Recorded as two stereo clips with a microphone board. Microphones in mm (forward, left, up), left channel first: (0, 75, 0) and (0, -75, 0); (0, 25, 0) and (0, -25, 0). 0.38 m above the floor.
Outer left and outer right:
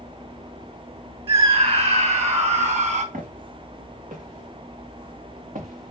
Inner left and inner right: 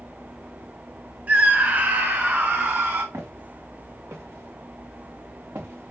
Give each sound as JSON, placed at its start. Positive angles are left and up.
{"t": 1.3, "sound": "a scream", "side_deg": -40, "distance_m": 3.0}
{"t": 3.1, "sound": "footsteps", "side_deg": -85, "distance_m": 3.5}